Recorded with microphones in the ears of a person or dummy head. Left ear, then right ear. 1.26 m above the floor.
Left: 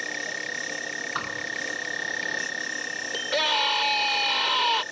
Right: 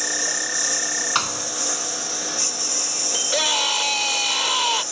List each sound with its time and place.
0.0 s a lawn mower: 55° right (ahead or behind)
1.1 s a thud: 75° right (ahead or behind)
3.1 s a scream: centre (ahead or behind)